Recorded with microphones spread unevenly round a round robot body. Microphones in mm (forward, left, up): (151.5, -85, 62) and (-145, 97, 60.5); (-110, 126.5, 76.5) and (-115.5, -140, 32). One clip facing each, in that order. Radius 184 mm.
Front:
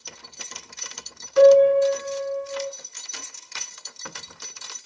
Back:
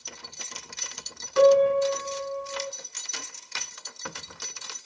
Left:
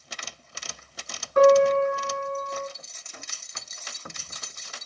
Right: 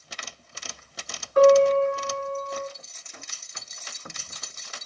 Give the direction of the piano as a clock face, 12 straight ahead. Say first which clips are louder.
Front 5 dB, right 1 dB; 7 o'clock.